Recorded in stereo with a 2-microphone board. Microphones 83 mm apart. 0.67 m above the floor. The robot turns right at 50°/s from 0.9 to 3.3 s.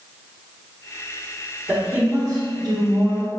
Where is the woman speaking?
160° right, 1.3 m; by 3.3 s 80° right, 1.3 m.